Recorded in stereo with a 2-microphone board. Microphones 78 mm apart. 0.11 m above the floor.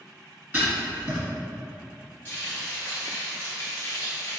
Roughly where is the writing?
Centre.